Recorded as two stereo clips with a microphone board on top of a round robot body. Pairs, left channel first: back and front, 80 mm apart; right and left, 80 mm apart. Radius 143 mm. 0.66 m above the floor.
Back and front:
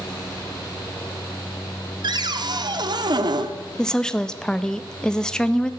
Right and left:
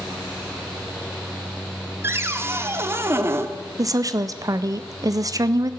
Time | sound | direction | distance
2.0 | a cupboard door | 30° left | 1.0 m
3.8 | a woman speaking | 100° left | 0.9 m